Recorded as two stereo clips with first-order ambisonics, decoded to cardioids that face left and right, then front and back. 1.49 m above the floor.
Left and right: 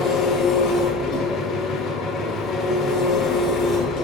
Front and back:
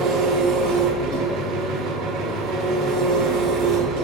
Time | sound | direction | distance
0.0 | an engine running | 150° left | 2 m